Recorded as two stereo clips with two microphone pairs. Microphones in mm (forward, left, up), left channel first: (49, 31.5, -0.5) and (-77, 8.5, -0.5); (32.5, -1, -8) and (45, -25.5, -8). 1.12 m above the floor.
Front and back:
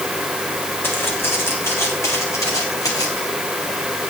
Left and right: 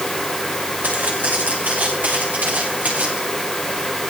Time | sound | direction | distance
0.8 | footsteps | 65° right | 6 m